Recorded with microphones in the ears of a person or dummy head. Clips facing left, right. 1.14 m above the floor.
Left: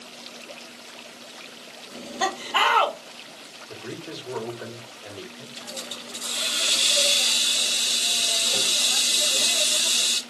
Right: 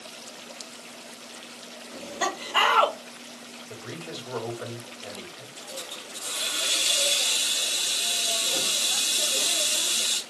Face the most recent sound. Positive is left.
turn(degrees=55)  # may be behind; listen again after turning